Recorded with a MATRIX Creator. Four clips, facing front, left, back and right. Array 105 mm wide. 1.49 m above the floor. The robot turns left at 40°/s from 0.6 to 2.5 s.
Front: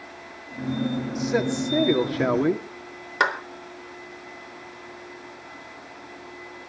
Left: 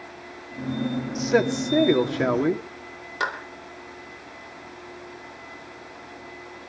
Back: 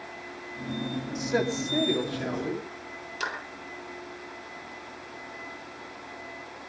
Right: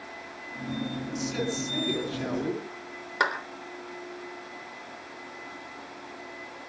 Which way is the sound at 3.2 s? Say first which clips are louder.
Right 1 dB, front 11 dB; 20° right.